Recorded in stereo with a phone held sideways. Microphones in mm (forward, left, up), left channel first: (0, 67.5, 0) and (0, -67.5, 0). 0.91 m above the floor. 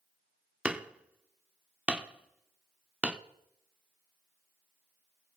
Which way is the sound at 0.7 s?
10° right (ahead or behind).